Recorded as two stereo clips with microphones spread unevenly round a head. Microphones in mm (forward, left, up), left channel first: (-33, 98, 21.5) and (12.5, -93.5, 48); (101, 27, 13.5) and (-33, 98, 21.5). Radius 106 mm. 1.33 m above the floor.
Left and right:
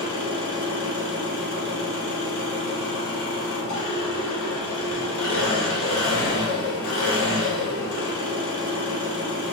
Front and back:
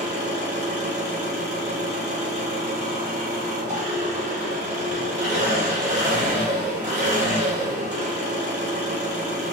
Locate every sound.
0.0 s an engine running: 110° left, 2.0 m